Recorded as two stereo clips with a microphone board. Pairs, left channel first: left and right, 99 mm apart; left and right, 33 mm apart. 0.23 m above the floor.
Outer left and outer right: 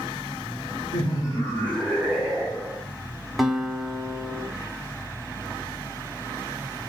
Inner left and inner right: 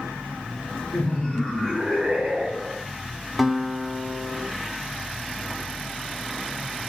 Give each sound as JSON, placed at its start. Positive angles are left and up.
{"t": 0.9, "sound": "laughter", "side_deg": 45, "distance_m": 1.9}
{"t": 3.4, "sound": "a guitar", "side_deg": 0, "distance_m": 0.7}